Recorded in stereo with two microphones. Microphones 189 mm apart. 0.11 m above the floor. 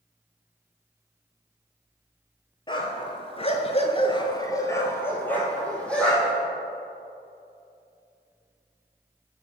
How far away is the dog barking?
About 1.0 m.